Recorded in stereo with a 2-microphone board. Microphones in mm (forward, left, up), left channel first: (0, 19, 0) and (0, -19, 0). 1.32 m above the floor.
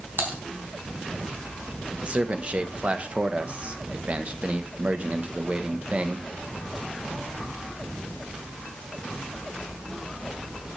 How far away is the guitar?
I don't hear a guitar.